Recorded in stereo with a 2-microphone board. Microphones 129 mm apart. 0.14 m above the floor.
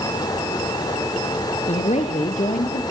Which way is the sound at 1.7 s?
60° left (ahead or behind).